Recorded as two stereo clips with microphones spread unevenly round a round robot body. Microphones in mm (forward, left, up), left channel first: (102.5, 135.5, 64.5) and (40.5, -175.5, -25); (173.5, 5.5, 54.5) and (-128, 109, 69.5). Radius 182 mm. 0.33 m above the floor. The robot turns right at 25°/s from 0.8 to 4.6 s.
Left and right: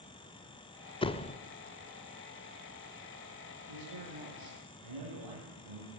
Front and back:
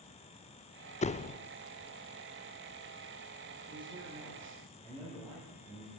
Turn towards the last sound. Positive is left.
turn(degrees=-100)